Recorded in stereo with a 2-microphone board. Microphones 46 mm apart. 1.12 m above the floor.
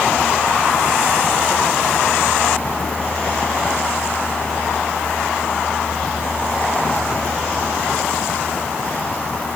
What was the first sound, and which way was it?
Only background noise.